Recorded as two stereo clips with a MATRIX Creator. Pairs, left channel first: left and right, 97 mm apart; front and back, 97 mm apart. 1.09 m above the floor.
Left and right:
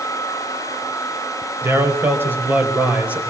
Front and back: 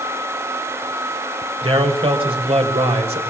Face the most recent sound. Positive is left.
turn(degrees=-165)